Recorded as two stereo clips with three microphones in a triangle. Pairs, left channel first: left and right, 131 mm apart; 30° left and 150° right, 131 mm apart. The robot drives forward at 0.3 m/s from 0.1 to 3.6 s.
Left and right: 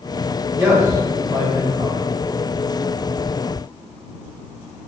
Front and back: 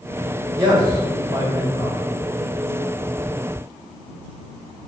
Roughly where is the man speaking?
Behind right.